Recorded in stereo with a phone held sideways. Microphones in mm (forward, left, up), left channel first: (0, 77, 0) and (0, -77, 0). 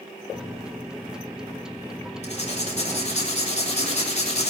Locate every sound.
0.3 s a microwave: 5° right (ahead or behind), 0.8 m
2.2 s writing: 50° left (ahead or behind), 3.5 m